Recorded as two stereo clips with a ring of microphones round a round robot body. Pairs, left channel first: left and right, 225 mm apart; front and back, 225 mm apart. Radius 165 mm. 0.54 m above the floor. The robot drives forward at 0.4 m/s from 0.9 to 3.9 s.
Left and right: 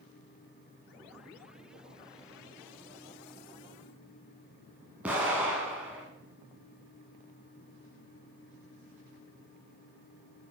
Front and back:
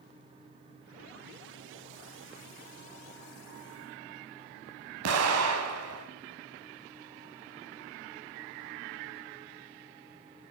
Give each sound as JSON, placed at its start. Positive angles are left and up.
{"t": 5.0, "sound": "an explosion", "azimuth_deg": -175, "distance_m": 0.8}